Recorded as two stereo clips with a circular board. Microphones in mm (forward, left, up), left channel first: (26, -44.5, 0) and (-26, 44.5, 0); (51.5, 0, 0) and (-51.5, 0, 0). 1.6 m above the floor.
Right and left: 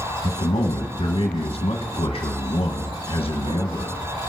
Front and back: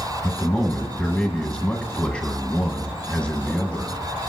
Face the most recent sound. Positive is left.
turn(degrees=-85)